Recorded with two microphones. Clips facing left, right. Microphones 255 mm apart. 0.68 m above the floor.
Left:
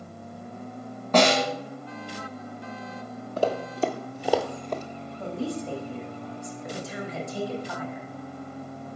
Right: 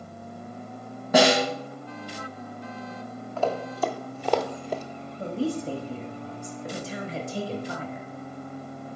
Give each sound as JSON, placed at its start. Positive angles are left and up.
{"t": 1.1, "sound": "a snare drum", "side_deg": -10, "distance_m": 1.4}
{"t": 3.4, "sound": "running footsteps", "side_deg": 40, "distance_m": 0.8}
{"t": 5.2, "sound": "a woman speaking", "side_deg": -35, "distance_m": 1.0}